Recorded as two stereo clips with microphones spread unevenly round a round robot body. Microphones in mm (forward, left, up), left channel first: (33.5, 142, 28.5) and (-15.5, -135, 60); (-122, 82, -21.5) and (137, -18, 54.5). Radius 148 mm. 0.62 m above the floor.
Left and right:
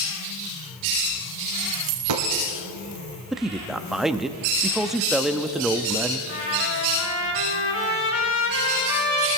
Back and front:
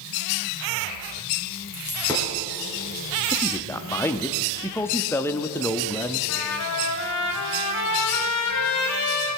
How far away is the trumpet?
About 2.5 m.